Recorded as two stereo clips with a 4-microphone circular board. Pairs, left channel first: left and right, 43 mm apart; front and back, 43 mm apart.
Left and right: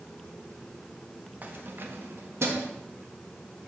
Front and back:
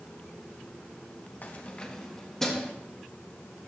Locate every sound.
1.4 s keys jangling: 40° right, 0.7 m; by 2.7 s 85° right, 1.5 m